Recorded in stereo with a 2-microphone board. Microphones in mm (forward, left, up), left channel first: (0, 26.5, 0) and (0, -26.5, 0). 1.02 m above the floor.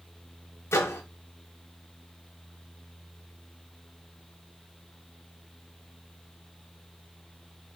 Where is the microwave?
55° left (ahead or behind), 0.9 m.